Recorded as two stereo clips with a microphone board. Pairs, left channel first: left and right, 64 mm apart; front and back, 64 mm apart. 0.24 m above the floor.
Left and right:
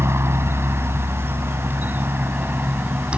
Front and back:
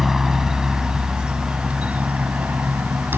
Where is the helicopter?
95° right; by 3.2 s 155° right.